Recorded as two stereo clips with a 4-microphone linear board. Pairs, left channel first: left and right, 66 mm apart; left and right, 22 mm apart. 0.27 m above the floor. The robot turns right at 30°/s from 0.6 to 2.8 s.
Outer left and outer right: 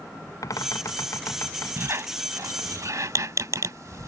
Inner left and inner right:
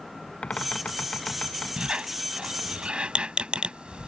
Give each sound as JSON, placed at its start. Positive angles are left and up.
{"t": 0.4, "sound": "a bird", "azimuth_deg": 100}
{"t": 1.8, "sound": "a squeak", "side_deg": -40}